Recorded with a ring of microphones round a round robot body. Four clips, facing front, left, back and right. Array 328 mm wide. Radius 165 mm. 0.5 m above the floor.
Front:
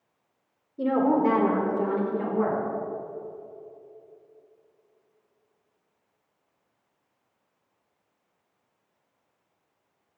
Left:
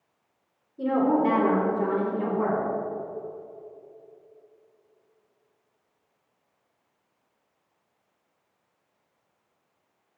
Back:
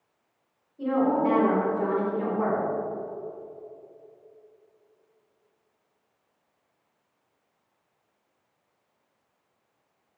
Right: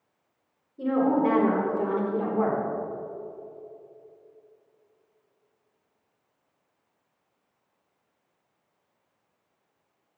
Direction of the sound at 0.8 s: Straight ahead.